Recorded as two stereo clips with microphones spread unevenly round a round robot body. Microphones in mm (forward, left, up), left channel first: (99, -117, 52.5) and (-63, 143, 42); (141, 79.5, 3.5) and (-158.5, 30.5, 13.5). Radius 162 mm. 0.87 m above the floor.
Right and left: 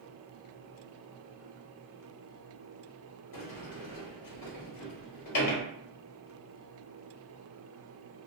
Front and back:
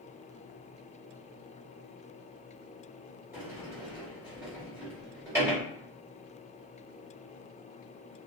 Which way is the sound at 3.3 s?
90° right.